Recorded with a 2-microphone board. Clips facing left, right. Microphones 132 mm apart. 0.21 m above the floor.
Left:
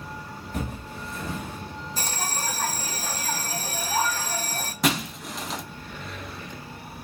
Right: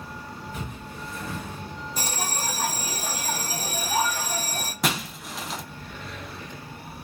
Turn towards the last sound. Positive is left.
turn(degrees=0)  # may be behind; listen again after turning